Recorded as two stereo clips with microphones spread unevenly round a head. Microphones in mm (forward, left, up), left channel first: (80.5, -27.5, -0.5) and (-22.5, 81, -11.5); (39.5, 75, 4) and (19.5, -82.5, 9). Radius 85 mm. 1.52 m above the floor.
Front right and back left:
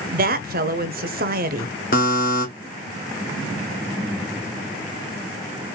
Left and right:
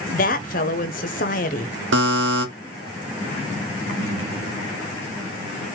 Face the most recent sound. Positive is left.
turn(degrees=-95)